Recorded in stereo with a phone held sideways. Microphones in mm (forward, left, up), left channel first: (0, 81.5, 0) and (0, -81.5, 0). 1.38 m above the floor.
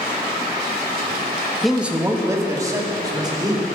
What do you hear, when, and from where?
1.6 s a man speaking: centre (ahead or behind), 1.0 m; by 3.7 s 25° right (ahead or behind), 3.5 m